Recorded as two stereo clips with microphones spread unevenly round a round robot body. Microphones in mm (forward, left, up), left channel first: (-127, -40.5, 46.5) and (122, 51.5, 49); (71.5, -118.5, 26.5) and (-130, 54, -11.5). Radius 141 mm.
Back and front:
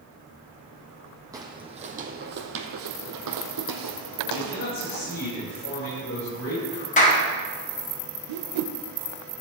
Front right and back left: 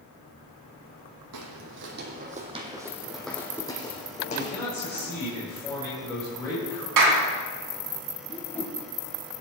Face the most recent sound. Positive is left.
turn(degrees=45)